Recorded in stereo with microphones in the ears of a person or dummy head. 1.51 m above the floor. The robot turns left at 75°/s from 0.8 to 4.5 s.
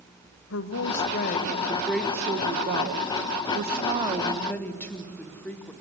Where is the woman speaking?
90° left, 1.3 m; by 5.7 s 175° left, 1.3 m.